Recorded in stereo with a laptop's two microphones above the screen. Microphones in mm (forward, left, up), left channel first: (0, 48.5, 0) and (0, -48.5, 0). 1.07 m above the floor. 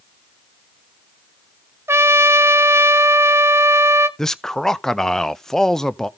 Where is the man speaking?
5° left (ahead or behind), 0.5 m.